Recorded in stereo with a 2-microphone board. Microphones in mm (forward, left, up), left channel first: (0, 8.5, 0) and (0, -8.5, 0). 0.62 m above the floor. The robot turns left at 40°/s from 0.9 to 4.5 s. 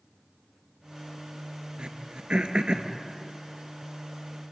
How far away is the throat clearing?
About 2 m.